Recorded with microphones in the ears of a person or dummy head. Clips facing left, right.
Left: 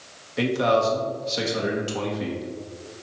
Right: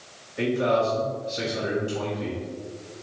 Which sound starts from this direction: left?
A man speaking, at 0.4 s.